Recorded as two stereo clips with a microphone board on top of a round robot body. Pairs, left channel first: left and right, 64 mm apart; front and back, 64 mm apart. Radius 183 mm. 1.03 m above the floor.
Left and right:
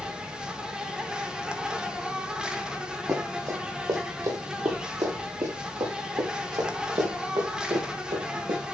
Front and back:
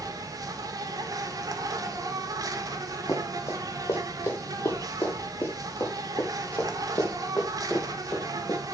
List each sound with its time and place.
0.0 s an insect: 170° right, 1.8 m
3.1 s running footsteps: 45° right, 4 m; by 8.6 s 80° right, 5.5 m